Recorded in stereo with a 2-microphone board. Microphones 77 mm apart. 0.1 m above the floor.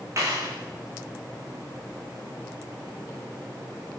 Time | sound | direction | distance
0.2 | a clap | 40° right (ahead or behind) | 7.5 m